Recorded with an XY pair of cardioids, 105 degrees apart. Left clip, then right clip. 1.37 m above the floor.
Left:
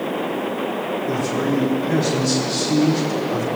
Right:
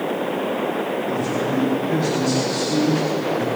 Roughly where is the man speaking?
Ahead left.